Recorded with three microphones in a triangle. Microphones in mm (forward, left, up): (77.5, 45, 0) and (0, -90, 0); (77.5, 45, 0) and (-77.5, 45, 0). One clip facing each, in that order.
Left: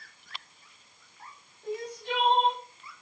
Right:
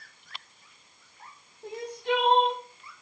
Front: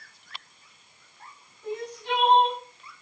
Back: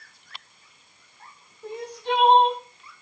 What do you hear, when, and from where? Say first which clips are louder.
1.6 s crying: right 3 dB, back 2 dB; 130° right, 2 m